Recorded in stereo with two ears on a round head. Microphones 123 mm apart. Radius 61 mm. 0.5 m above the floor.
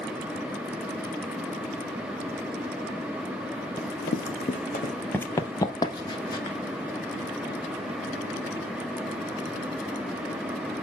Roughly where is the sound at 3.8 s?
Left.